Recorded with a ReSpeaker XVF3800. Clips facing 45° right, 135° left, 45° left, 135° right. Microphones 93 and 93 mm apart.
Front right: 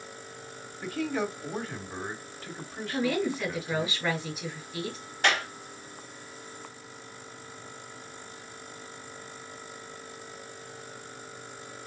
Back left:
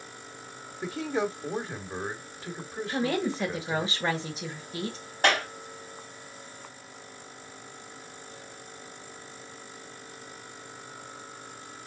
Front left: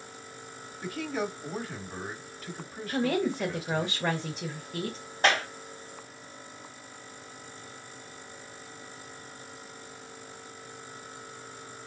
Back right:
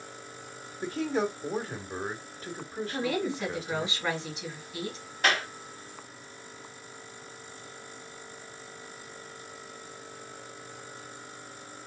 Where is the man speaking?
170° right, 1.3 m.